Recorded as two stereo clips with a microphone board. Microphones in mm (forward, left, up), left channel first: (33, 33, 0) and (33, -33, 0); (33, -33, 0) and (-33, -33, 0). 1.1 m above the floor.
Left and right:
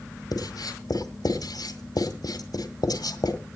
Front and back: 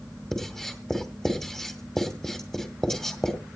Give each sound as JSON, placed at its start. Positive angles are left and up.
{"t": 0.3, "sound": "writing", "azimuth_deg": 80, "distance_m": 1.9}